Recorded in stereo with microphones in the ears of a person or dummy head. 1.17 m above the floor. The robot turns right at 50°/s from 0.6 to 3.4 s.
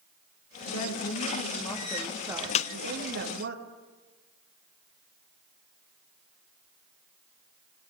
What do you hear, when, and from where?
0.7 s a woman speaking: 105° left, 2.5 m; by 3.5 s 120° right, 2.5 m
2.5 s a snare drum: 35° left (ahead or behind), 0.6 m